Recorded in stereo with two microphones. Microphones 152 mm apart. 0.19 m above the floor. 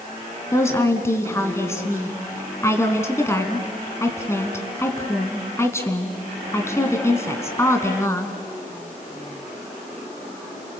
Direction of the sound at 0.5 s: 20° left (ahead or behind).